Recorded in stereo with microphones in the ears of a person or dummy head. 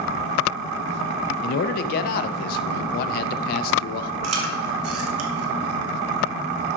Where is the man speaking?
55° left (ahead or behind), 0.6 m.